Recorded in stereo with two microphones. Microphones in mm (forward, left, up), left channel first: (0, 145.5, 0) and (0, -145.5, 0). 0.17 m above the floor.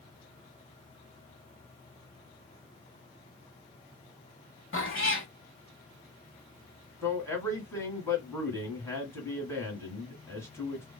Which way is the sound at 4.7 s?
45° left (ahead or behind).